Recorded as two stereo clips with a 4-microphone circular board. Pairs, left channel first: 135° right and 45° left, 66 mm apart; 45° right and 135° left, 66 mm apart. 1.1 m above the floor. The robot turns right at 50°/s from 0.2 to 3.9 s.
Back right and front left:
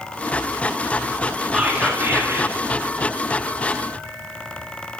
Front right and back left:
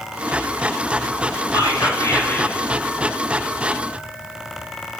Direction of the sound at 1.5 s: 35° right.